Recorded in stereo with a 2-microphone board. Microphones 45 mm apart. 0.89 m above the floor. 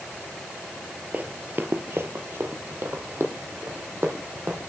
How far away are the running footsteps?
About 1.3 m.